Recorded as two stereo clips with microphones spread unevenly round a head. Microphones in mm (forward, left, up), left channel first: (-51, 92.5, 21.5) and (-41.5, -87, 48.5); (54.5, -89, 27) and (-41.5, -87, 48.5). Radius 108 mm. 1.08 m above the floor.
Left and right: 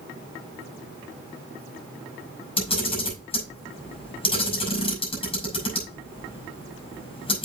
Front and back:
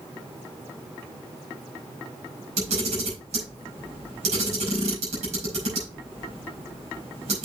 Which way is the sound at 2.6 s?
155° left.